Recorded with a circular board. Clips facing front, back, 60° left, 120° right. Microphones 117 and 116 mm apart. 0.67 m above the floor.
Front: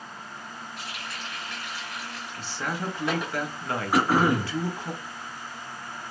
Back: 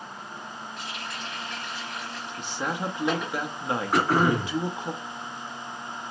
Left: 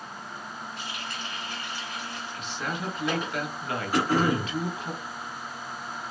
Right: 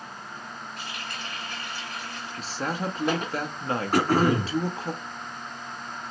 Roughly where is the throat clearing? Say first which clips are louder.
Front 1 dB, right 2 dB; right.